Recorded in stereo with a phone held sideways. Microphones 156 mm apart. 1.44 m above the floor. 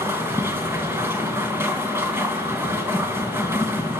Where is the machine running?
15° right (ahead or behind), 3 m.